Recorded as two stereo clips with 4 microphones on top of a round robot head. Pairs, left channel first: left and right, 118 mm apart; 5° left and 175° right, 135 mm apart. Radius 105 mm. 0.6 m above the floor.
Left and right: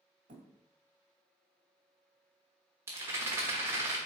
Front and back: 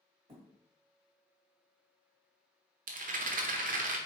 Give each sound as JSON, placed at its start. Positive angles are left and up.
{"t": 0.3, "sound": "a thud", "azimuth_deg": -115, "distance_m": 1.8}
{"t": 2.9, "sound": "a rattle", "azimuth_deg": -160, "distance_m": 1.1}